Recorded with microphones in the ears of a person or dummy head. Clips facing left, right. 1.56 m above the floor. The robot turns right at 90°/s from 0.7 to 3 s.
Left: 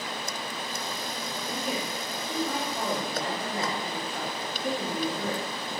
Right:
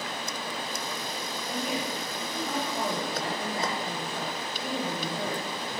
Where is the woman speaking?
70° left, 1.4 m; by 5.4 s 150° right, 1.4 m.